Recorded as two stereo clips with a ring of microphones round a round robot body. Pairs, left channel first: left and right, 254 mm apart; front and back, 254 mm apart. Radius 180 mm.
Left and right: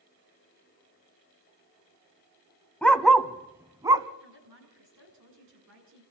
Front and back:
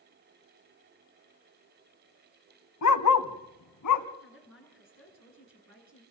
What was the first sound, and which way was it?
A dog barking, 5° left.